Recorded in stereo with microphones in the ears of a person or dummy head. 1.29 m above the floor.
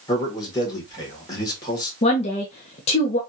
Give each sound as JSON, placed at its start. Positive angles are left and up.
{"t": 0.1, "sound": "a man speaking", "side_deg": 25, "distance_m": 1.6}
{"t": 2.0, "sound": "a woman speaking", "side_deg": 35, "distance_m": 0.7}